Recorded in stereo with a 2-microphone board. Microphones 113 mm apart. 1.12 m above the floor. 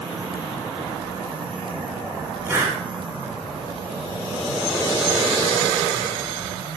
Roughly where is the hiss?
Right.